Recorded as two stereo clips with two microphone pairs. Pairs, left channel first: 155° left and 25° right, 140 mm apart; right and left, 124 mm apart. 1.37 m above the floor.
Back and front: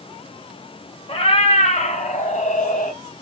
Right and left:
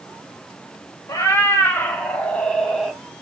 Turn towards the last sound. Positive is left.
turn(degrees=180)